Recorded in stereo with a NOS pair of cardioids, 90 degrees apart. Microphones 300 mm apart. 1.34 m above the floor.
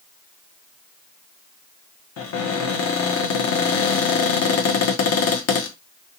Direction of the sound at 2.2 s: 55° left.